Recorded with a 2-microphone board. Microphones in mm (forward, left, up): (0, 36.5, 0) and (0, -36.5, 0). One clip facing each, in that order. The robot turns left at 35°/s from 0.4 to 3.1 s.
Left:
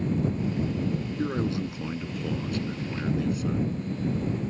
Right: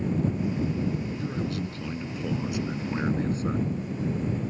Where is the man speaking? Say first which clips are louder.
Left 3 dB; 35° left; by 3.6 s 30° right.